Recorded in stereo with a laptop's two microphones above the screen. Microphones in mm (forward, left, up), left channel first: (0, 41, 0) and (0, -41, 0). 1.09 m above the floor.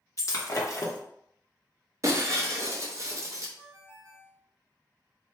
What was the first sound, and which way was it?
Breaking glass, 45° left (ahead or behind).